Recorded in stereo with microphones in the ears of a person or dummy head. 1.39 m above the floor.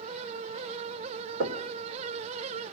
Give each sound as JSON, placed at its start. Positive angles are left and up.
{"t": 1.4, "sound": "knocking", "side_deg": -80, "distance_m": 2.5}